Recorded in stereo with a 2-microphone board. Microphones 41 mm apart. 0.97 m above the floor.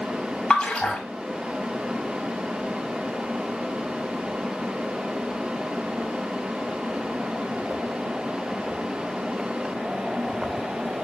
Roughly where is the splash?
Left.